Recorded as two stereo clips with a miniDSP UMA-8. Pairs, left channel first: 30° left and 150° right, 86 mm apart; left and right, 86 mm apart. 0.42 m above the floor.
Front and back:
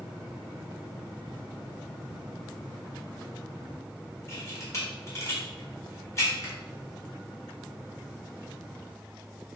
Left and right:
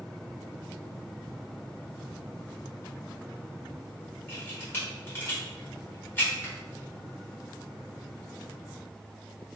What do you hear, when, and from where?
4.3 s a camera shutter: 45° left, 1.6 m